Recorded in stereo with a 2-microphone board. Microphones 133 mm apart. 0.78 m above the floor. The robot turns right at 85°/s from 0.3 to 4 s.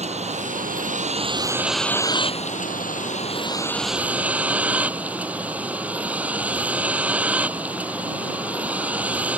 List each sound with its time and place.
0.0 s a vehicle: 125° right; by 9.4 s 170° right